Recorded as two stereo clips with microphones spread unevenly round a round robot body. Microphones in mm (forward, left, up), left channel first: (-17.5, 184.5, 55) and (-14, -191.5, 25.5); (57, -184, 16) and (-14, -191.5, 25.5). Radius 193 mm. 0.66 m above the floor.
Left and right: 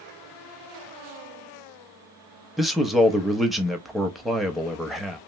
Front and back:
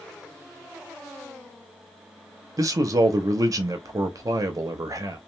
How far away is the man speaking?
About 0.7 m.